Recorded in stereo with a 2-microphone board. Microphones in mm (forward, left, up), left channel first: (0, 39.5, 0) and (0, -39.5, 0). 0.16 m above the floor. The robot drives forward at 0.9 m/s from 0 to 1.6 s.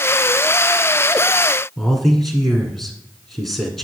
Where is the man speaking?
5° left (ahead or behind), 1.8 m.